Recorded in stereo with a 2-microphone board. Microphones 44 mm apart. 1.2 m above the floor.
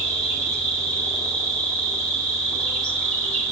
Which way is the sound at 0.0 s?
5° left (ahead or behind).